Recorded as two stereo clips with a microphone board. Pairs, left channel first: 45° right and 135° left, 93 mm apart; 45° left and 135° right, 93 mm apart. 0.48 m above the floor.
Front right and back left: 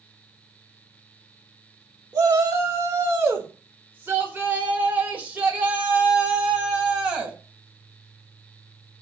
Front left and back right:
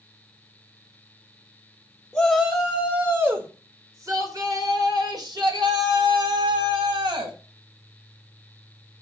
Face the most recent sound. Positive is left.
turn(degrees=-150)